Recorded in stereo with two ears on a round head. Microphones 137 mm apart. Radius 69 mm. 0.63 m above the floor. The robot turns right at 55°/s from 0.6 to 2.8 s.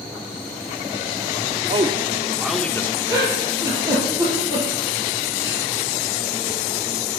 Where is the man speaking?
35° right (ahead or behind), 1.3 m; by 3.0 s 15° left (ahead or behind), 1.3 m.